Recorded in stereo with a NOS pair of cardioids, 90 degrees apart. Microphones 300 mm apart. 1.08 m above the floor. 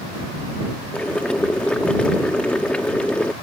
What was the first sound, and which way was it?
Boiling, 5° left.